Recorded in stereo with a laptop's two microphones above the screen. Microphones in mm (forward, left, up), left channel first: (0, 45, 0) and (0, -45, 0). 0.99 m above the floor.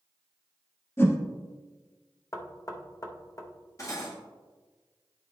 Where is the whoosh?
25° left (ahead or behind), 0.8 m.